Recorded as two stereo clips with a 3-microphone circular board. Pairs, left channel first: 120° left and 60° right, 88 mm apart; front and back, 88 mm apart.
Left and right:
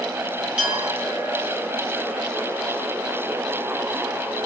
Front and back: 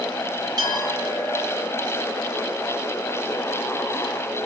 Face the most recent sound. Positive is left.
turn(degrees=-135)